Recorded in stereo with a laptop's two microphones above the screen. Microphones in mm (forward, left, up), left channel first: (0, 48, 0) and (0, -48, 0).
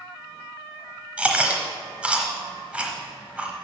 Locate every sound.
1.2 s chewing: 15° right (ahead or behind), 1.0 m